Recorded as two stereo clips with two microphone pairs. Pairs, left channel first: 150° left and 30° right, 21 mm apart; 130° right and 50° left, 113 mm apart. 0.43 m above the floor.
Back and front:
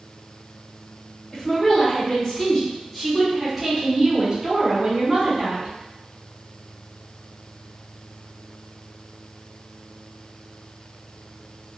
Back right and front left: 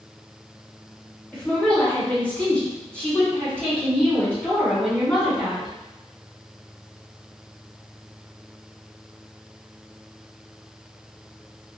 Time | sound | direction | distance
1.3 | a woman speaking | 155° left | 1.6 m